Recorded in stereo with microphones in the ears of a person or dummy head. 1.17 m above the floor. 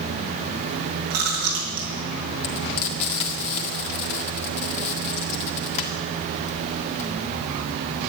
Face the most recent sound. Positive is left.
turn(degrees=35)  # may be behind; listen again after turning